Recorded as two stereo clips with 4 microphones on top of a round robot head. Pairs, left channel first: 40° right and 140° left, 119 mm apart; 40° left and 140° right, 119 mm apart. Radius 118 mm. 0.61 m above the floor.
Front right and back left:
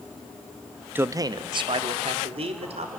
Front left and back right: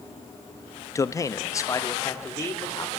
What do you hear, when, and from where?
0.9 s a man speaking: 80° left, 0.6 m; by 3.0 s 105° left, 2.5 m